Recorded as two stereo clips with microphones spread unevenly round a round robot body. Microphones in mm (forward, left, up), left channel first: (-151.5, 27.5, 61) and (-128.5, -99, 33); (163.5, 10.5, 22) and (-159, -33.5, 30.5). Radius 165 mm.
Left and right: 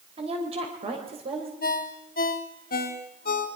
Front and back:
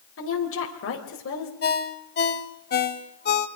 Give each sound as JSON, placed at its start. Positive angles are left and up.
{"t": 0.2, "sound": "a woman speaking", "azimuth_deg": -40, "distance_m": 3.0}
{"t": 1.6, "sound": "a ringtone", "azimuth_deg": 70, "distance_m": 1.2}